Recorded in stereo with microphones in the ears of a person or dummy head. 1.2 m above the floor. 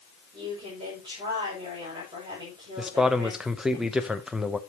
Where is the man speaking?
5° right (ahead or behind), 0.8 m.